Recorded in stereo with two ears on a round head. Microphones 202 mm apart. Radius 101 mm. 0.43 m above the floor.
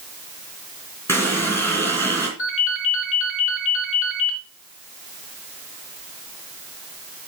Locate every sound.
1.1 s a running tap: 10° left (ahead or behind), 3 m
2.4 s a ringtone: 60° left (ahead or behind), 4 m